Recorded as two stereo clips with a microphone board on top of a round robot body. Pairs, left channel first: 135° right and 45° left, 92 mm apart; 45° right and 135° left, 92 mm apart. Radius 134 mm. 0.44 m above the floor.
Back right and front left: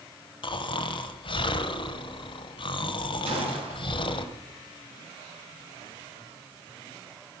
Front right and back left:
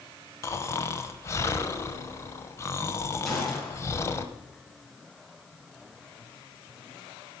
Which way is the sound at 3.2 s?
45° left.